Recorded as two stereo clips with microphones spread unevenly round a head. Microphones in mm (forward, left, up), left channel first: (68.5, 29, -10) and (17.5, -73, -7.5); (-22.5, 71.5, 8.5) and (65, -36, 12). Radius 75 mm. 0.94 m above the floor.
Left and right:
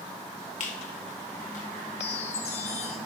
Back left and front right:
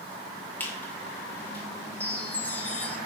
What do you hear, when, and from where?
0.6 s a squeak: 55° left, 1.7 m
2.0 s a chime: 55° left, 1.5 m